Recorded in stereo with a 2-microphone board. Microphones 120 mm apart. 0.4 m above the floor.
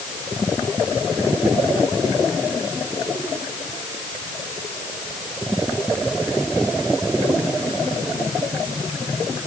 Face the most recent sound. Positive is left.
No sound to turn to.